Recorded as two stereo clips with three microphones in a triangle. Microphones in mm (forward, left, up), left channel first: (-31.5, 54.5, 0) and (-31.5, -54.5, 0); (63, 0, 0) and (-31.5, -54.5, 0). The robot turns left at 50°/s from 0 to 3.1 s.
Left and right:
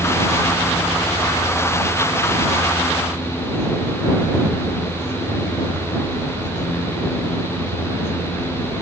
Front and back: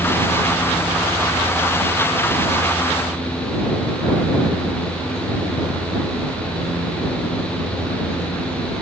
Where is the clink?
I don't hear a clink.